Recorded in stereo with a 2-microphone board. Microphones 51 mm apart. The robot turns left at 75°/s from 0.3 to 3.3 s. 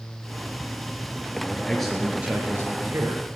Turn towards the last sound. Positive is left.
turn(degrees=-105)